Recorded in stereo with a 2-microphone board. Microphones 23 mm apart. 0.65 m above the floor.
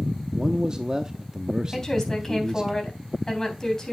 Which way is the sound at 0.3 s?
30° right (ahead or behind).